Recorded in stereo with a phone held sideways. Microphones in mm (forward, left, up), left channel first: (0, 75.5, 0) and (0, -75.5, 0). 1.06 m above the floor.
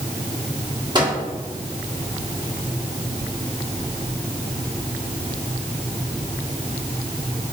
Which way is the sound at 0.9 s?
30° right (ahead or behind).